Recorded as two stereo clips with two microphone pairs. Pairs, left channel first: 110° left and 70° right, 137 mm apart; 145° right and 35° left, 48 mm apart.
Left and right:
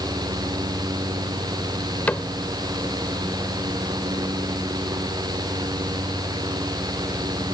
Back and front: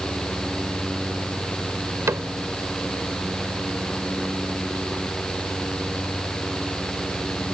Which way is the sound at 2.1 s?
30° left.